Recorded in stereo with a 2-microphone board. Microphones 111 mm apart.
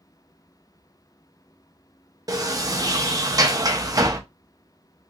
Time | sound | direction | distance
2.3 | a sliding door | 35° right (ahead or behind) | 0.6 m